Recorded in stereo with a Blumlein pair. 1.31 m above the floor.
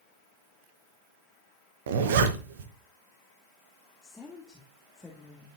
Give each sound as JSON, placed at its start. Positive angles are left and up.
{"t": 1.9, "sound": "a zipper", "azimuth_deg": -55, "distance_m": 1.0}
{"t": 4.0, "sound": "a woman speaking", "azimuth_deg": 10, "distance_m": 1.4}